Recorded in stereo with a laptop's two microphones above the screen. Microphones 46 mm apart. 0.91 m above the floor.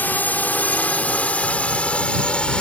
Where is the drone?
40° left (ahead or behind); by 2.6 s 20° left (ahead or behind).